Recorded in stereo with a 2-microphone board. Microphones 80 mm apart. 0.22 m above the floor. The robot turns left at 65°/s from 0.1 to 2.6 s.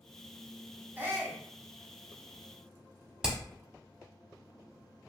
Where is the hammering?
10° right (ahead or behind), 0.9 m.